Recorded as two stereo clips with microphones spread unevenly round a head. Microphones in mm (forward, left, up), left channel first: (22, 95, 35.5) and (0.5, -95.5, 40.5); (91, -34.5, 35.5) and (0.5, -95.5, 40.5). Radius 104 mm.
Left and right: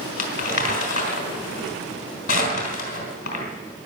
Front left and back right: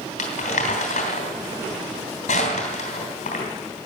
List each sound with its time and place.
0.2 s crumpling: 40° left, 3 m